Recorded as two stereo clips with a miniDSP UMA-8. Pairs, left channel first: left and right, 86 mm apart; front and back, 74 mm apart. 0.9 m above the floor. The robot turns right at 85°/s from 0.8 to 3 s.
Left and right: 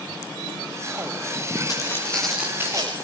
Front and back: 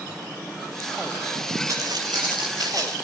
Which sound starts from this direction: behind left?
Footsteps, at 1.7 s.